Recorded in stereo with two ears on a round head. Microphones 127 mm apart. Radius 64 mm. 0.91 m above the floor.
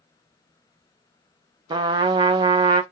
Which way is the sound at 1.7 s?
30° right (ahead or behind).